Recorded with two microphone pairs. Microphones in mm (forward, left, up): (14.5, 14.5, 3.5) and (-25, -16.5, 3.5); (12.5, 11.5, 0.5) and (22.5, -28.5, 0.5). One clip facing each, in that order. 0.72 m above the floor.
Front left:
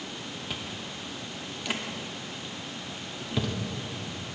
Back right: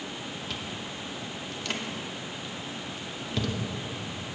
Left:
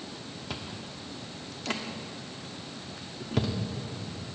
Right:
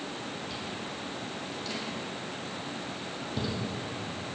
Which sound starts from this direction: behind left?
Chewing, at 0.5 s.